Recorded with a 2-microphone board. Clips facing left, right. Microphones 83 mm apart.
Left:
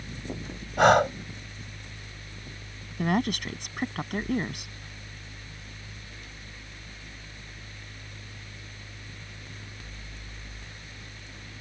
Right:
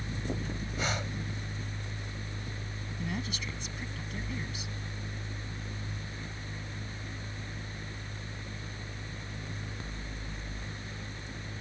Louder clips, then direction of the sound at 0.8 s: Left 18 dB; 70° left (ahead or behind).